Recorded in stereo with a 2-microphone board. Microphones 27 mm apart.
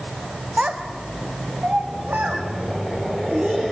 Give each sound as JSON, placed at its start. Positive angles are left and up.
{"t": 0.6, "sound": "a child speaking", "side_deg": -50, "distance_m": 1.5}